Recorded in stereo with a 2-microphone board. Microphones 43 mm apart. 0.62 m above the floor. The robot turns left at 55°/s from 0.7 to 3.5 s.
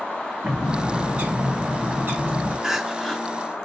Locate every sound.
0.4 s a bird: 20° right, 1.8 m; by 2.5 s 120° right, 1.8 m
2.6 s crying: 165° right, 0.5 m; by 3.2 s 165° left, 0.5 m